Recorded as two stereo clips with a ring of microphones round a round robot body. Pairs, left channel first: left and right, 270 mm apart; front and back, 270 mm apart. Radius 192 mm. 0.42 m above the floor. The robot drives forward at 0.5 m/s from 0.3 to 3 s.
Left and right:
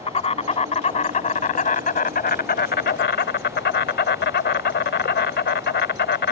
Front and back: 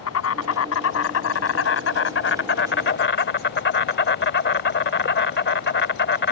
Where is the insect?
25° left; by 6.3 s 45° left.